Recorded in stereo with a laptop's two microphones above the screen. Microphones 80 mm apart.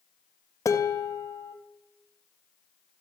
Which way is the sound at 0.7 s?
40° left (ahead or behind).